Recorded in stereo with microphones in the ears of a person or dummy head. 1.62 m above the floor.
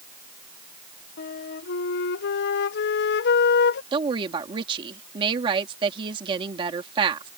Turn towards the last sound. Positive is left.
turn(degrees=-30)  # may be behind; listen again after turning